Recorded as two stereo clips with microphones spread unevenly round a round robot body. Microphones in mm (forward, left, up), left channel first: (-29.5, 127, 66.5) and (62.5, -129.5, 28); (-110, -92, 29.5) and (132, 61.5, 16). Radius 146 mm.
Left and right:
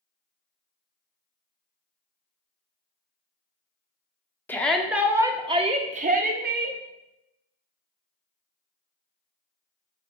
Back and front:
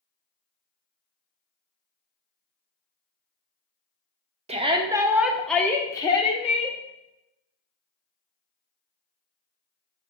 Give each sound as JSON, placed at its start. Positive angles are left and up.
{"t": 4.5, "sound": "a shout", "azimuth_deg": 20, "distance_m": 1.2}